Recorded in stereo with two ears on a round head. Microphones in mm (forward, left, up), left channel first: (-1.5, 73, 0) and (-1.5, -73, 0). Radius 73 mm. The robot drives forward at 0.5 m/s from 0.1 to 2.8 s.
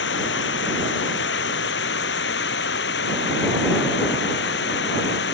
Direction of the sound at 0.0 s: 75° left (ahead or behind).